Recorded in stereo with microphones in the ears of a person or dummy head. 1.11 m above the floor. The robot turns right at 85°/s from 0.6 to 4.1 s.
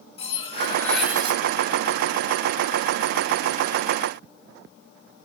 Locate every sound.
0.2 s cutlery clinking: 145° left, 0.7 m; by 1.4 s 145° right, 0.7 m